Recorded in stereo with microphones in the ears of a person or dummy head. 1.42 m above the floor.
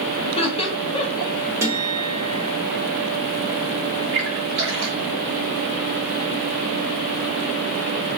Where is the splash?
60° right (ahead or behind), 1.1 m.